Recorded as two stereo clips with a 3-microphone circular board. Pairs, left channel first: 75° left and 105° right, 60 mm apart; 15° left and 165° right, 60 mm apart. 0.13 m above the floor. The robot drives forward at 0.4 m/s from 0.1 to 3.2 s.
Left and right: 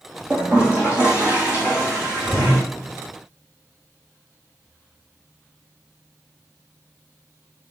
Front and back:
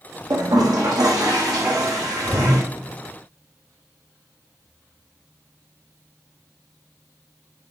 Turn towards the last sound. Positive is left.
turn(degrees=-175)